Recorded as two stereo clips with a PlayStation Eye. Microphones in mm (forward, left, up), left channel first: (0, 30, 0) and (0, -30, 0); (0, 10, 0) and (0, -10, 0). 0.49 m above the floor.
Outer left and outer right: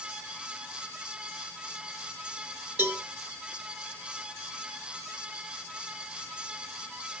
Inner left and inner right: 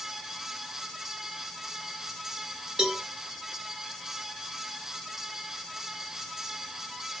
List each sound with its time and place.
2.8 s a cowbell: 30° right (ahead or behind), 1.7 m